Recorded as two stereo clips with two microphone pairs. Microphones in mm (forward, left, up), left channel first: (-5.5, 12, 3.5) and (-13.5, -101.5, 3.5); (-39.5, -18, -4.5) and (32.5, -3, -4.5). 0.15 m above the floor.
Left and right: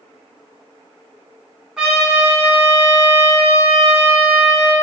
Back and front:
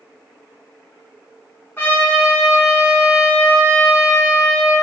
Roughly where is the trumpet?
Behind.